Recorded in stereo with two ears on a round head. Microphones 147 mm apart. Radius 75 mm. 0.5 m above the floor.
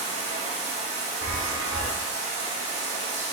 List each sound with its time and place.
0.0 s running water: 40° right (ahead or behind), 1.6 m
1.2 s a chime: 80° right, 1.1 m